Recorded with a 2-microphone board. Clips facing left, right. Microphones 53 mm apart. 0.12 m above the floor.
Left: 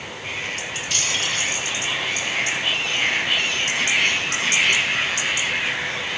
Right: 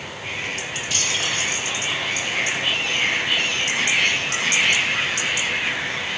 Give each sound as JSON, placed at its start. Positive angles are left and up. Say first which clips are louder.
{"t": 0.9, "sound": "keys jangling", "louder": "even", "side_deg": -5, "distance_m": 10.0}